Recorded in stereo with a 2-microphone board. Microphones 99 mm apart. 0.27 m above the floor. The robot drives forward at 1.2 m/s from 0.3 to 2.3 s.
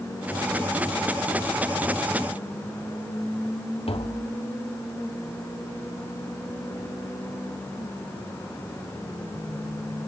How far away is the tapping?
About 2.5 m.